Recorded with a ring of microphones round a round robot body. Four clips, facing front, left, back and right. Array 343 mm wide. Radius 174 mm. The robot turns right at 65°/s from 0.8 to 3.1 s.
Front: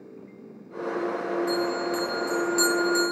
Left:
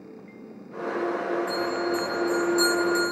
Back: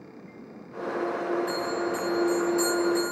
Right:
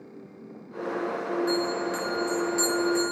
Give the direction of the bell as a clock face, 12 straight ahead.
2 o'clock.